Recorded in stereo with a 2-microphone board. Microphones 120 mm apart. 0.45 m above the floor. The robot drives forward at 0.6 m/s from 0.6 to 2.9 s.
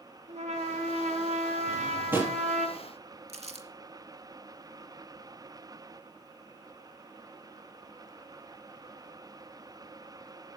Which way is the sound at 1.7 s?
20° right (ahead or behind).